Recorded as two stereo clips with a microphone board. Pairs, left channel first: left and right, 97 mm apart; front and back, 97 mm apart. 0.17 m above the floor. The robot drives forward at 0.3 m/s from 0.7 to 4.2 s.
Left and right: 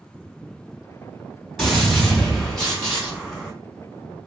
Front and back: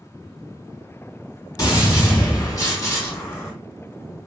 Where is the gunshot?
5° left, 2 m.